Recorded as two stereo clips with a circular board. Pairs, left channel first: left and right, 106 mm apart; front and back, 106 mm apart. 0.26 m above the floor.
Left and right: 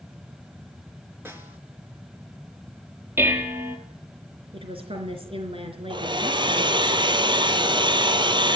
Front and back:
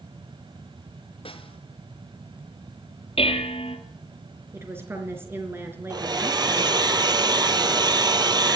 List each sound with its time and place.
1.2 s a snare drum: 25° right, 3.5 m
3.2 s dishes clattering: 20° right, 4 m
4.5 s a woman speaking: 115° right, 4 m
5.9 s a hair dryer: 135° right, 1.4 m